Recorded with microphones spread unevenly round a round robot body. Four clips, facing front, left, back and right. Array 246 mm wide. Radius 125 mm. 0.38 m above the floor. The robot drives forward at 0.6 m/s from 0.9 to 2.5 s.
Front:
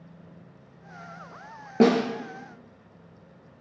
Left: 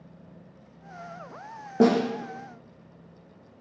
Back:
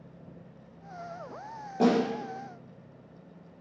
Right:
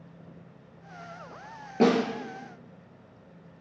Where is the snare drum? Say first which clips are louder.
Left 2 dB, front 4 dB; 25° left, 2.5 m.